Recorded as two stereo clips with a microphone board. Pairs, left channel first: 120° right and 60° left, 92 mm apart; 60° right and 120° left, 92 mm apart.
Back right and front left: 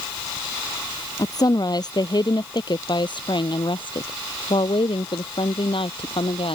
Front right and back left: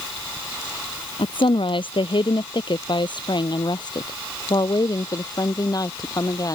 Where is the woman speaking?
75° right; by 6.6 s 110° right.